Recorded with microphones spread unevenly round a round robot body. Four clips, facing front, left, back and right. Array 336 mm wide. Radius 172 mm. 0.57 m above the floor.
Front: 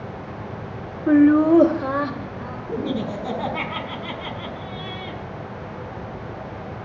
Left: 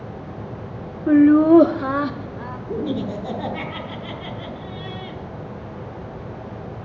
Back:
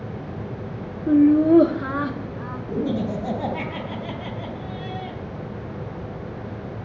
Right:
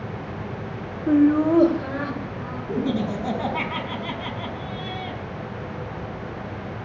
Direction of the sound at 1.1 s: 95° left.